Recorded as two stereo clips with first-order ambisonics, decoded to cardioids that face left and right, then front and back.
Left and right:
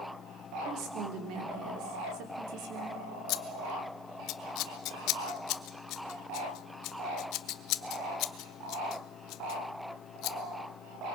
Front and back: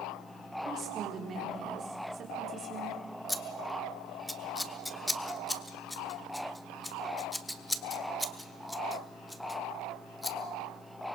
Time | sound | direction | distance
0.7 | a woman speaking | 120° right | 3.5 m
3.3 | scissors | 85° left | 0.9 m